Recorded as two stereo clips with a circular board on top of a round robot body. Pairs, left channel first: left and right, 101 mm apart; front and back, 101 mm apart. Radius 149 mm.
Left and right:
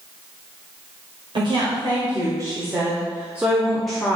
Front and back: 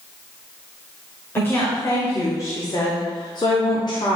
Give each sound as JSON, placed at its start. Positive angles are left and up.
{"t": 1.4, "sound": "a woman speaking", "azimuth_deg": -65, "distance_m": 2.5}